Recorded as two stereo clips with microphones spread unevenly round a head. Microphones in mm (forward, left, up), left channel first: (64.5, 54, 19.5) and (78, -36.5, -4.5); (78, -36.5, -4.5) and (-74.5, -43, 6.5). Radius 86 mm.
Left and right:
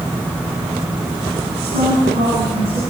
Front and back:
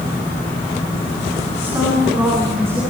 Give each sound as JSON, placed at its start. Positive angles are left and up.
{"t": 1.6, "sound": "a woman speaking", "azimuth_deg": -100, "distance_m": 9.0}